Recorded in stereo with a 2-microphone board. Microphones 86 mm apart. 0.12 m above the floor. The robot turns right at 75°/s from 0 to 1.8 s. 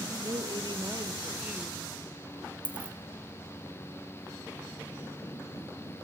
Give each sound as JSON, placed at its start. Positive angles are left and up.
{"t": 0.2, "sound": "a woman speaking", "azimuth_deg": -115, "distance_m": 2.0}
{"t": 2.6, "sound": "a dropped coin", "side_deg": -15, "distance_m": 1.5}